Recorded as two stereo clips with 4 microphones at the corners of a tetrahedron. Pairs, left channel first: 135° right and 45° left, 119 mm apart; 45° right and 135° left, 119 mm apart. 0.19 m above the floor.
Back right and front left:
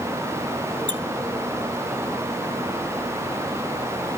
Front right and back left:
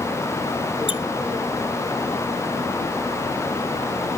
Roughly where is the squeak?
Ahead.